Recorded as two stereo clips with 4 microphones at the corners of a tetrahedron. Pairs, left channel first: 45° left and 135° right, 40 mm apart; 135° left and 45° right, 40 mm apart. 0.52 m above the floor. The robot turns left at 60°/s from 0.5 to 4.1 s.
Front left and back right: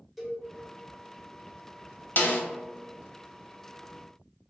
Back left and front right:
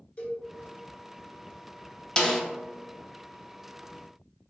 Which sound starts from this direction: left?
A snare drum, at 2.2 s.